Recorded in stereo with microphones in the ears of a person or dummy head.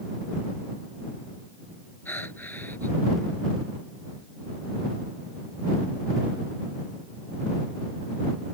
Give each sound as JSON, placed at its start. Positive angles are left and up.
{"t": 2.0, "sound": "breathing", "side_deg": 10}